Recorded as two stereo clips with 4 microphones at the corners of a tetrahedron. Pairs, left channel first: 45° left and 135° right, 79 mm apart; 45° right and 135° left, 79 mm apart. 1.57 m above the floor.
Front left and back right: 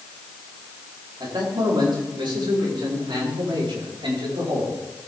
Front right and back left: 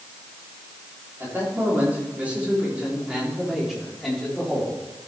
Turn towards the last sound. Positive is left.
turn(degrees=-130)